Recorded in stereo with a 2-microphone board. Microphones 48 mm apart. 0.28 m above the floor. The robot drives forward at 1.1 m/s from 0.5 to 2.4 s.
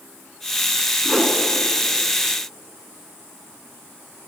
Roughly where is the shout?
No shout in this recording.